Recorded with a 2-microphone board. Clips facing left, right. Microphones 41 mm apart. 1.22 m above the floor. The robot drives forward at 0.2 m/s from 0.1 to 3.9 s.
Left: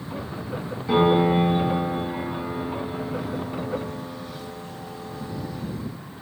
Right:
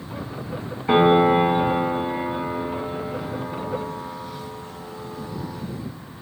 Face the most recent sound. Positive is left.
turn(degrees=-25)  # may be behind; listen again after turning